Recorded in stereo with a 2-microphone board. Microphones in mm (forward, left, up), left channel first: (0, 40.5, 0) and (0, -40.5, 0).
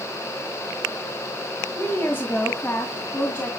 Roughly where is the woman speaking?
Left.